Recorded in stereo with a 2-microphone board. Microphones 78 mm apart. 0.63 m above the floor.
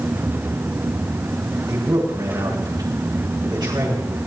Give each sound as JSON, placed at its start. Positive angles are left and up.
{"t": 1.7, "sound": "a man speaking", "side_deg": -60, "distance_m": 9.0}